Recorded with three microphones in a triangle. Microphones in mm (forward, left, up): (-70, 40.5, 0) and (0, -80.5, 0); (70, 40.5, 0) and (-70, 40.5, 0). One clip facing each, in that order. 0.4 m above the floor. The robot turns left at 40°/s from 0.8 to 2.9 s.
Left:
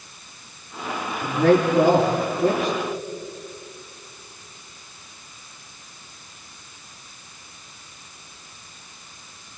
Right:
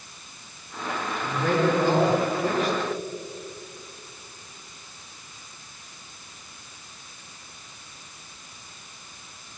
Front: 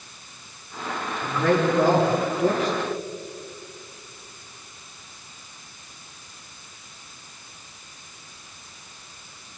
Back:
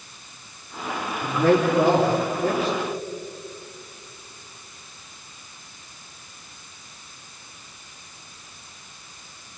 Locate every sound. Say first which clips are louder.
1.2 s a man speaking: left 6 dB, back 2 dB; 110° left, 7 m; by 2.8 s 50° left, 7 m